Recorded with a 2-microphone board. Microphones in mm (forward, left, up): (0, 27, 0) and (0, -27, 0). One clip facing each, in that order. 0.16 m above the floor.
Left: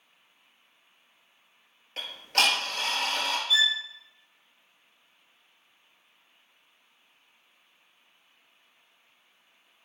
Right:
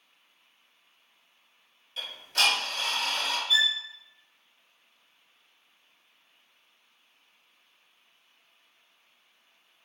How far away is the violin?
About 1.3 m.